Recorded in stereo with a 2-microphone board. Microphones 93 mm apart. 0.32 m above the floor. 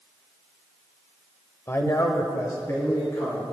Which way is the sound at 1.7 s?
25° left (ahead or behind).